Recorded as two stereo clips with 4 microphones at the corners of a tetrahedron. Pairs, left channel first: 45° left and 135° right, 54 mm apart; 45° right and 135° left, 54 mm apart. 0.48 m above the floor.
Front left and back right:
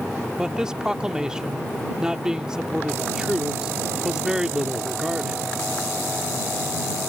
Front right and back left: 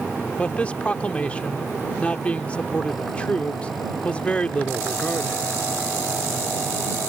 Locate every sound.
0.4 s a man speaking: 75° right